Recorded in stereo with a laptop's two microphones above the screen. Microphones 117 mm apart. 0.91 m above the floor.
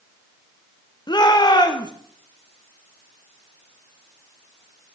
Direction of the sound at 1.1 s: 40° left (ahead or behind).